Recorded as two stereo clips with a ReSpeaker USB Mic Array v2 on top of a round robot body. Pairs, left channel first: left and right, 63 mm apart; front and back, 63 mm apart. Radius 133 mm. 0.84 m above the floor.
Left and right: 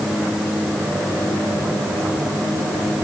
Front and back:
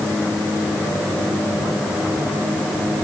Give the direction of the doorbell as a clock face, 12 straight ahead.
No doorbell in this recording.